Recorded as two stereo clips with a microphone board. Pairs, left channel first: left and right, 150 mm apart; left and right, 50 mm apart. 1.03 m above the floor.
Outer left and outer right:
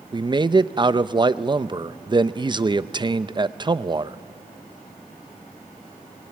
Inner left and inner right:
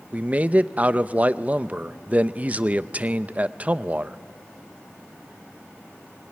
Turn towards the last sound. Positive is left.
turn(degrees=-30)  # may be behind; listen again after turning